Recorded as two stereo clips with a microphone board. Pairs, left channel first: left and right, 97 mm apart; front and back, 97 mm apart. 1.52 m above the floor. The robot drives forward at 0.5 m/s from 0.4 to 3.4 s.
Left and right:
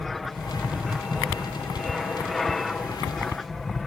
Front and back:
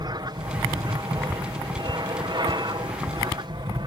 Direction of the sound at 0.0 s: Straight behind.